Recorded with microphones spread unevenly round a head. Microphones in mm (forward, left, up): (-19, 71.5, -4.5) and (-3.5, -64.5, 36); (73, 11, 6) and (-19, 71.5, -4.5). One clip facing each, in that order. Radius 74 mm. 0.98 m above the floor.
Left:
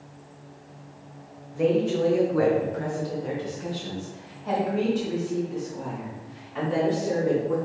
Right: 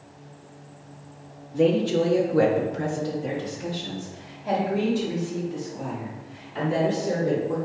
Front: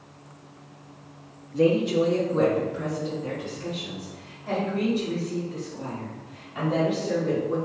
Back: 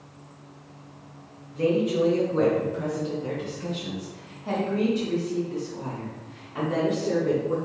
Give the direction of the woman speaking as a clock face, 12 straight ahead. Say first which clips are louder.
Right 2 dB, front 2 dB; 1 o'clock.